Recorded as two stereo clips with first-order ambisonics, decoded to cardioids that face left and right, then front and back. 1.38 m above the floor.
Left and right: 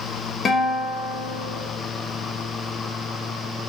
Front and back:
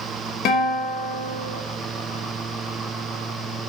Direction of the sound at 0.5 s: 20° left.